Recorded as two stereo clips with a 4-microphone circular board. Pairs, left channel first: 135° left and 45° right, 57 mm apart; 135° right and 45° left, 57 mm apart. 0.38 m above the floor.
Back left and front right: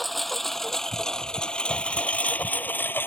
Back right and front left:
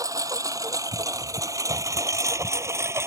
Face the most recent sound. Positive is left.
turn(degrees=80)